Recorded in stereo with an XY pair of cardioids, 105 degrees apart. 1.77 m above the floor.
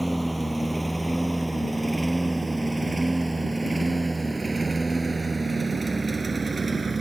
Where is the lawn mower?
Straight ahead; by 7.0 s 25° right.